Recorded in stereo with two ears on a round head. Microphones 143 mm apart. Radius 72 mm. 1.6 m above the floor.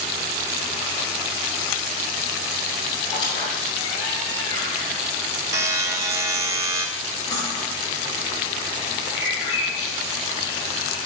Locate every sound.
3.1 s a squeak: 30° left (ahead or behind), 3 m
5.5 s a buzzer: 20° right (ahead or behind), 0.8 m
7.3 s cutlery clinking: 30° left (ahead or behind), 5.5 m
9.2 s a bird: 25° left (ahead or behind), 6 m